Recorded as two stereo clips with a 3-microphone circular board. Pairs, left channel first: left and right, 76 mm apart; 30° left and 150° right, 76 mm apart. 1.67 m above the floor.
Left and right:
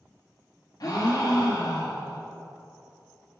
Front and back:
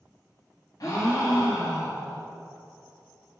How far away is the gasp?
About 1.5 m.